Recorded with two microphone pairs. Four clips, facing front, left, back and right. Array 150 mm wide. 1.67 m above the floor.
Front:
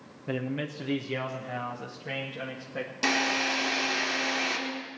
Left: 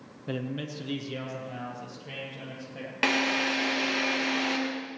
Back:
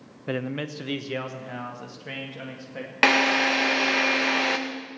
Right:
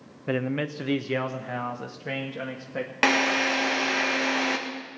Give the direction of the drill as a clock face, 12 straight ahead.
5 o'clock.